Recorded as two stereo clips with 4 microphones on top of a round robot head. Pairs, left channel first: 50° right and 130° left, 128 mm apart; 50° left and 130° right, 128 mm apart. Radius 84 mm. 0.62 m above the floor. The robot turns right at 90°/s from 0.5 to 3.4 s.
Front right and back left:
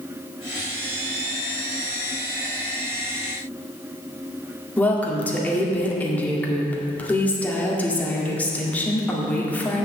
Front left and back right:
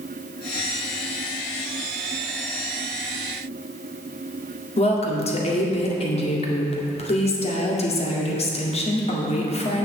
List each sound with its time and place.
4.8 s a woman speaking: 25° left, 1.9 m